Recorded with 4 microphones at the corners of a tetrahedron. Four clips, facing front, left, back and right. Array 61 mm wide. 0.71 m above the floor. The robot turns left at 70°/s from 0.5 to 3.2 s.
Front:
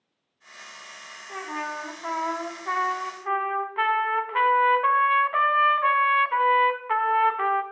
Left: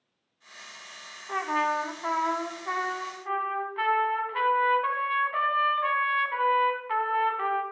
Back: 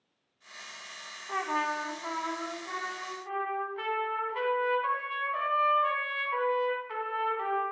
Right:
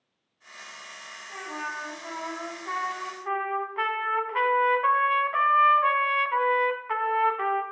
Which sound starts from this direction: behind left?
A trumpet, at 1.3 s.